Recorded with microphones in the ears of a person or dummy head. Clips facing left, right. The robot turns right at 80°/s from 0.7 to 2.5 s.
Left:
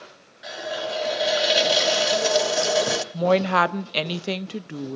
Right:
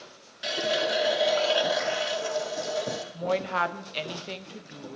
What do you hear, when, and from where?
0.4 s a running tap: 40° right, 0.9 m; by 3.0 s 105° left, 0.9 m
3.1 s a woman speaking: 70° left (ahead or behind), 0.8 m